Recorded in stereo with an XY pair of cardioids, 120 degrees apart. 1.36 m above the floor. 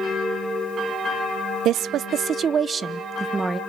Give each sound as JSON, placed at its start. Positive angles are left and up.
{"t": 1.6, "sound": "a woman speaking", "azimuth_deg": -70, "distance_m": 0.8}